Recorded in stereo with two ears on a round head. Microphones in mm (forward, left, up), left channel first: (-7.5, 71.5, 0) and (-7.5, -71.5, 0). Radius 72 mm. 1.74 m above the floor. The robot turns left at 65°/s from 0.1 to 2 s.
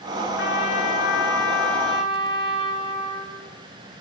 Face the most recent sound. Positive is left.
turn(degrees=-25)